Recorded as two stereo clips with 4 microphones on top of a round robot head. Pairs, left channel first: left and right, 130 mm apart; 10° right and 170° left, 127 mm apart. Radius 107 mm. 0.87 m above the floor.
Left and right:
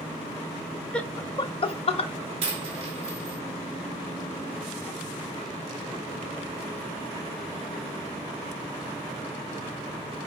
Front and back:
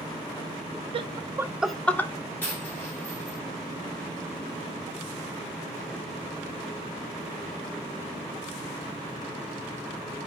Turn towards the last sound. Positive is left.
turn(degrees=-80)